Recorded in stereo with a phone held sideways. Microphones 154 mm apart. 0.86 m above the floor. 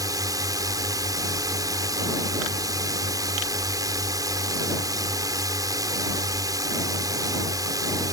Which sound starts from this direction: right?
A drone, at 0.0 s.